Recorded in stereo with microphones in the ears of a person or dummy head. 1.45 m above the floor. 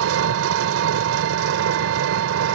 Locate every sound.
0.0 s an engine running: 80° right